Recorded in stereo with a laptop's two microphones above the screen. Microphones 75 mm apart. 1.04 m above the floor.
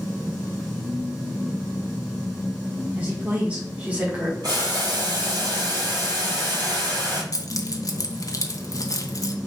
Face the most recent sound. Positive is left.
turn(degrees=50)  # may be behind; listen again after turning